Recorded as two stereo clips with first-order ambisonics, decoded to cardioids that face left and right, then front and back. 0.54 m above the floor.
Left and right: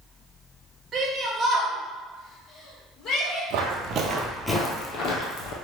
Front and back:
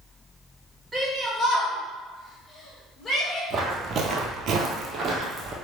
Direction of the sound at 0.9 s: 110° right.